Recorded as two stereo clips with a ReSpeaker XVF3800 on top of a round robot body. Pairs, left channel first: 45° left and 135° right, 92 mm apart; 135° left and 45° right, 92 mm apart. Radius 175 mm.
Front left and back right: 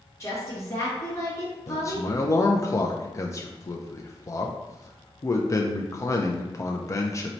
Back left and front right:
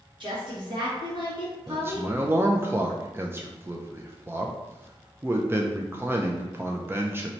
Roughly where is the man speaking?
Ahead.